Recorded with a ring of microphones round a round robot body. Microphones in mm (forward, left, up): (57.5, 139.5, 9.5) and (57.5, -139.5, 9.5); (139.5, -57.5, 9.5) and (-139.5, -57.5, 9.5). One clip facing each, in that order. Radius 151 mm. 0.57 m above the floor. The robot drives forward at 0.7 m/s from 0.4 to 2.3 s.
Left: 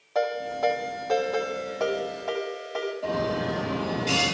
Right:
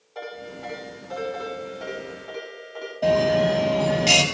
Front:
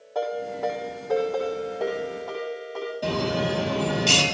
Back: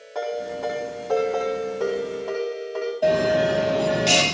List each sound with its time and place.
0.1 s a ringtone: 105° left, 9.5 m; by 2.9 s 110° left, 10 m
3.0 s a bell: 85° right, 5.5 m